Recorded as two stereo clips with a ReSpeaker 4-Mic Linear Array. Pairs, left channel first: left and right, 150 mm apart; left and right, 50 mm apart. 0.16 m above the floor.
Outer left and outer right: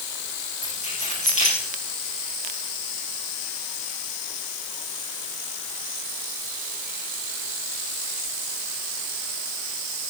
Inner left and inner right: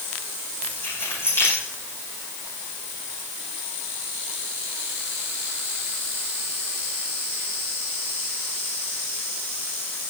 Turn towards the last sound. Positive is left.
turn(degrees=55)  # may be behind; listen again after turning